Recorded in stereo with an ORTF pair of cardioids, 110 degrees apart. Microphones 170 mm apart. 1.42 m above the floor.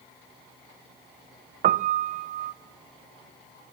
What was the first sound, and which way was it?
A piano, 50° right.